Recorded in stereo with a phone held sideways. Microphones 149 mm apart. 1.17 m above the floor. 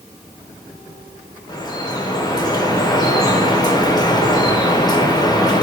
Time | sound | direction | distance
1.5 | dripping | 25° left (ahead or behind) | 0.6 m